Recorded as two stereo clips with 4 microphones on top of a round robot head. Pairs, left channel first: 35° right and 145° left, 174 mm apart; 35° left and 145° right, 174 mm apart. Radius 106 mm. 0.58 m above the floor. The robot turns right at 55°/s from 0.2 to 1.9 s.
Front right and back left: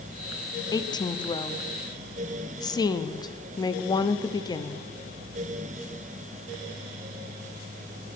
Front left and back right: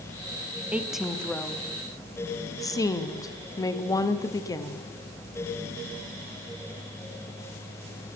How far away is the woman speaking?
About 0.9 m.